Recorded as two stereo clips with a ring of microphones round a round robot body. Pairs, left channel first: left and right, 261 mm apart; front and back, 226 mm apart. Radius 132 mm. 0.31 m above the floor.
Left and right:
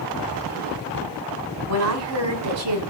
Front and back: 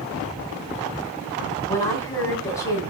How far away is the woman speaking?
About 2.5 m.